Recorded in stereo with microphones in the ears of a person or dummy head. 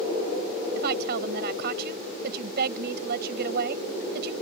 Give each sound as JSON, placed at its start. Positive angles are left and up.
{"t": 0.8, "sound": "a woman speaking", "side_deg": -55}